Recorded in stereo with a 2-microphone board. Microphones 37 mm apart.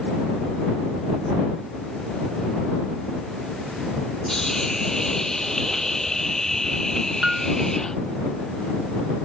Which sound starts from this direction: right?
A piano, at 7.2 s.